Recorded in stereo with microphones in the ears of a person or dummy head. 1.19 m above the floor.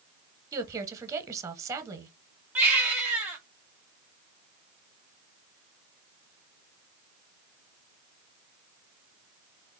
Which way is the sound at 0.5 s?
15° right (ahead or behind).